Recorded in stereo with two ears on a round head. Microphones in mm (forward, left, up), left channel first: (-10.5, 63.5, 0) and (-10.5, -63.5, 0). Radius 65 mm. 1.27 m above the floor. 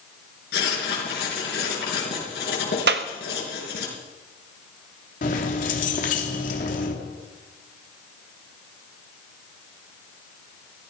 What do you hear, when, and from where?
0.5 s writing: 75° left (ahead or behind), 5.5 m
2.9 s a clap: 80° right, 1.2 m
5.2 s keys jangling: 55° left (ahead or behind), 2.5 m